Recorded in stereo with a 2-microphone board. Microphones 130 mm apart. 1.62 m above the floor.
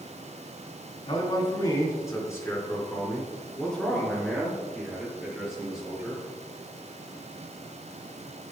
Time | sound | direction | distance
1.1 | a man speaking | 40° left (ahead or behind) | 3.5 m